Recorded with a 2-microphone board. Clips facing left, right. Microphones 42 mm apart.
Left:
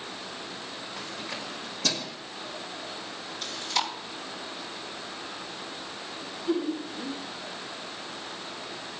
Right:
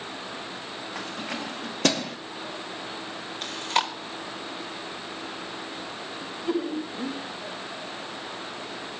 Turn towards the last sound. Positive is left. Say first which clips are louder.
# even
turn(degrees=-65)  # may be behind; listen again after turning